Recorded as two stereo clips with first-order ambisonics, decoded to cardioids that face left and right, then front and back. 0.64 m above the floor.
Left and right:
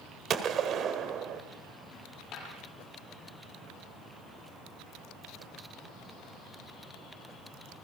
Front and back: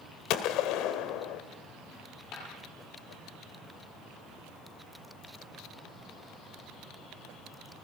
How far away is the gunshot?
About 1.5 m.